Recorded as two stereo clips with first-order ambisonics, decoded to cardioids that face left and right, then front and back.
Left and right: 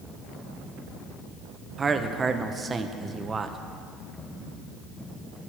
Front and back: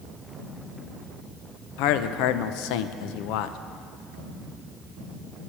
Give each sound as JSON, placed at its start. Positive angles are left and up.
{"t": 1.8, "sound": "a man speaking", "azimuth_deg": -15, "distance_m": 0.6}